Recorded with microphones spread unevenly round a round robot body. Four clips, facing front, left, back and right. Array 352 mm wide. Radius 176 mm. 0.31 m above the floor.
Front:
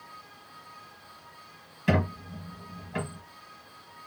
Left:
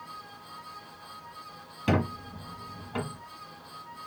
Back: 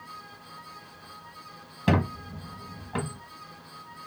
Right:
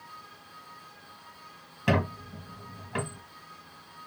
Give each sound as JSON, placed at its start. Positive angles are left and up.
{"t": 1.9, "sound": "a squeak", "azimuth_deg": -170, "distance_m": 0.9}